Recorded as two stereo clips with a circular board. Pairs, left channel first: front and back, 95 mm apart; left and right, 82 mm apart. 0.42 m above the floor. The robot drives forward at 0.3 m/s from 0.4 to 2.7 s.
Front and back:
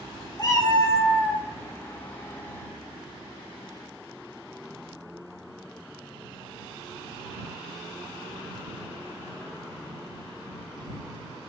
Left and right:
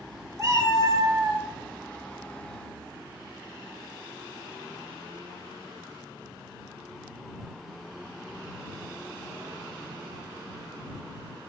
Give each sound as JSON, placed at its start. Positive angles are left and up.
{"t": 0.4, "sound": "a cat meowing", "azimuth_deg": -40, "distance_m": 0.6}